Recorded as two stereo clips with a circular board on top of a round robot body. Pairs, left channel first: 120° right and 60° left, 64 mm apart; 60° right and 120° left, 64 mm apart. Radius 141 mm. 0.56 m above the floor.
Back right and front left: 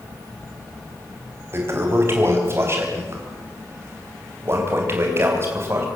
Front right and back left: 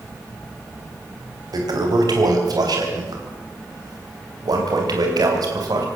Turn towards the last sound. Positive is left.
turn(degrees=110)